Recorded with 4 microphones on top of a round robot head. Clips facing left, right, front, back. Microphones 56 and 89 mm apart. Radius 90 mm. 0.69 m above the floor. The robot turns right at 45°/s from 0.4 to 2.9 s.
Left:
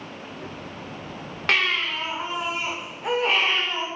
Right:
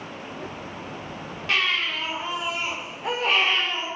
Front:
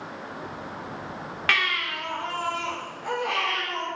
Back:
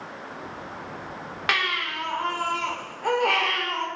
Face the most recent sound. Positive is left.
turn(degrees=175)